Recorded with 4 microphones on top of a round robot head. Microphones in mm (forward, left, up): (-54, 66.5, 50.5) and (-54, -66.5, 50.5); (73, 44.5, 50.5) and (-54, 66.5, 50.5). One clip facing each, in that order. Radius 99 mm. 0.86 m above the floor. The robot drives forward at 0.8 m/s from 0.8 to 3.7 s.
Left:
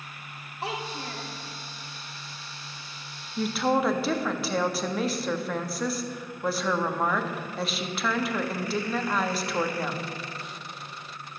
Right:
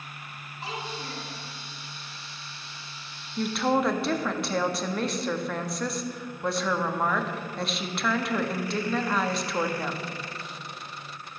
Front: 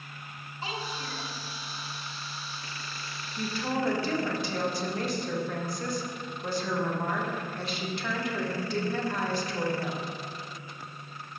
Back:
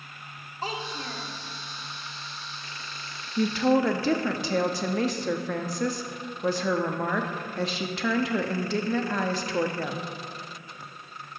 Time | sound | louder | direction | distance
0.6 | a child speaking | left 3 dB, back 3 dB | 120° left | 1.9 m
3.4 | a woman speaking | even, back 9 dB | 175° left | 0.8 m